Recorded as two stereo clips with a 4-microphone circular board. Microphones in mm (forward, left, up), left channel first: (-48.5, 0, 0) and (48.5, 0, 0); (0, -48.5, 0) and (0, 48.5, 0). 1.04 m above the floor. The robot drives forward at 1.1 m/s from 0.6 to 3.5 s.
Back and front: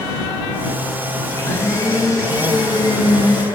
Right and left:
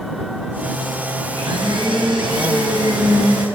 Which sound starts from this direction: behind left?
A blender, at 1.3 s.